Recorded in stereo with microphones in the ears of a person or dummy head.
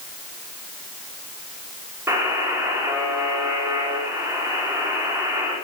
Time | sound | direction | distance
2.1 | a buzzer | 20° right (ahead or behind) | 4 m